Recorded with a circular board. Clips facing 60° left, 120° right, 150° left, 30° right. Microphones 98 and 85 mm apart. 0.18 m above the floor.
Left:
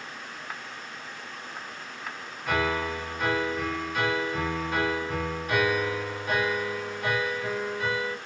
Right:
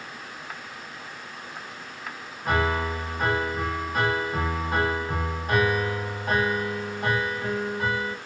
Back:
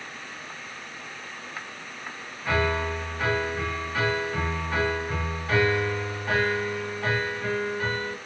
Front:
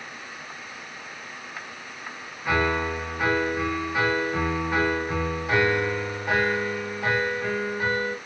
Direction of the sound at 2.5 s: 100° right.